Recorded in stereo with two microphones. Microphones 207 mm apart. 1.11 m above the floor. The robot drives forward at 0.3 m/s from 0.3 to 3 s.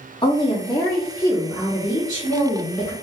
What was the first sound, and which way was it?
A woman speaking, 25° left (ahead or behind).